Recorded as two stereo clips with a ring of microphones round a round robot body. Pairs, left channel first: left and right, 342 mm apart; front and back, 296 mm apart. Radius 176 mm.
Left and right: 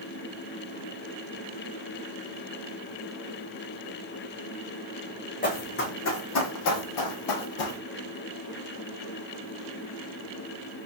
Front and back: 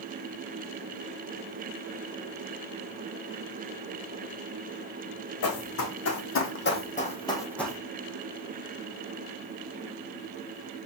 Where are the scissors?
No scissors in this recording.